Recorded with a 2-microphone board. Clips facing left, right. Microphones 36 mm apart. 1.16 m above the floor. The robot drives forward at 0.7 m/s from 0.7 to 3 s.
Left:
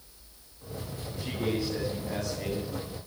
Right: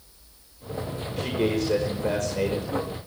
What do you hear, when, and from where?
1.2 s a man speaking: 85° right, 5 m; by 2.7 s 75° right (ahead or behind), 5.5 m